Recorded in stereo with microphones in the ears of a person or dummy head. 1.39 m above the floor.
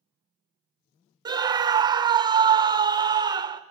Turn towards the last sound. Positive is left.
turn(degrees=-15)  # may be behind; listen again after turning